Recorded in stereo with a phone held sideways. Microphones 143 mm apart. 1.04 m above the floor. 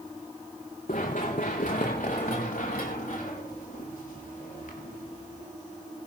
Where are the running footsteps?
65° left (ahead or behind), 3.5 m; by 5.5 s 70° left (ahead or behind), 6 m.